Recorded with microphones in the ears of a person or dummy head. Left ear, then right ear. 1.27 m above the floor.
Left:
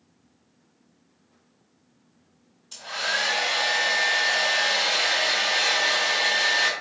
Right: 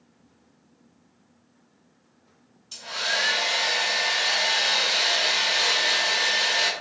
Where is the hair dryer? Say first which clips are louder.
Even; 5° left (ahead or behind), 1.5 m.